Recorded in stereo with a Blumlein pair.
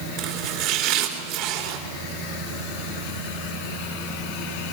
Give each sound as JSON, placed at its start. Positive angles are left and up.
{"t": 0.2, "sound": "chopping", "azimuth_deg": -40, "distance_m": 3.5}